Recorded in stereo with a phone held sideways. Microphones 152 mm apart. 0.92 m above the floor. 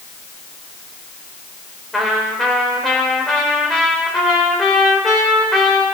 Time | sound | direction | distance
1.9 | a trumpet | 5° left (ahead or behind) | 4 m